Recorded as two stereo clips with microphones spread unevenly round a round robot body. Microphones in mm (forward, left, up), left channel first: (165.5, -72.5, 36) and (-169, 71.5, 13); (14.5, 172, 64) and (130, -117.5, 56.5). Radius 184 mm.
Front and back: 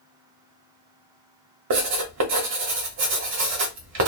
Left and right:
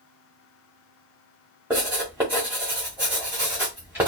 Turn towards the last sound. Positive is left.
turn(degrees=-155)